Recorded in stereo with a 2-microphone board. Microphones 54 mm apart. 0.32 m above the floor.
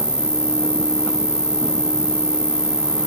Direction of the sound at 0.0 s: 55° right (ahead or behind).